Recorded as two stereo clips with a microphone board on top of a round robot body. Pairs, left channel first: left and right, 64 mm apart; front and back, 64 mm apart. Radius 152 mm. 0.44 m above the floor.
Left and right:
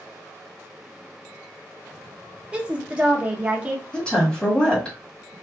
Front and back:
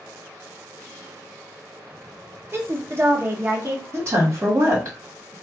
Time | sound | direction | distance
2.5 | a woman speaking | 150° right | 1.0 m
3.9 | a woman speaking | 160° left | 1.6 m